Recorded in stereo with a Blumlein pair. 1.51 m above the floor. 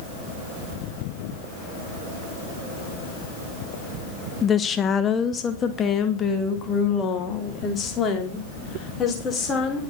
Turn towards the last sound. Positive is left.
turn(degrees=20)